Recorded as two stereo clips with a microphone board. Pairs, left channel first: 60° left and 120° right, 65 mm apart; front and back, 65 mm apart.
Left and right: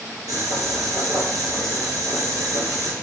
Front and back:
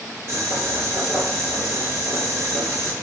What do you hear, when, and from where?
0.3 s boiling: 130° right, 2.5 m